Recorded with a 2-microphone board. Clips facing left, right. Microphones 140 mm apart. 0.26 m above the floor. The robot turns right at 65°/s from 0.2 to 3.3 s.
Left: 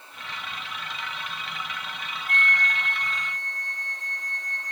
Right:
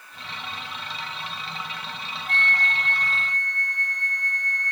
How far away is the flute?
About 2 m.